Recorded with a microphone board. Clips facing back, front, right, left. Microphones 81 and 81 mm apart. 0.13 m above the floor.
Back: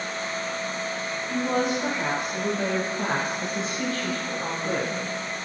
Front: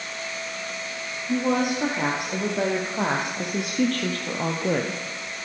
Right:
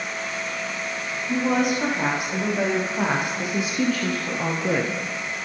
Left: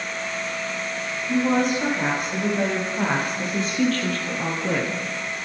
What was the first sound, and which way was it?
A woman speaking, 5° right.